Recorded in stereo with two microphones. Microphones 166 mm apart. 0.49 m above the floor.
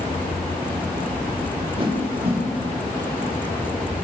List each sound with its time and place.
1.8 s a whoosh: 35° right (ahead or behind), 2 m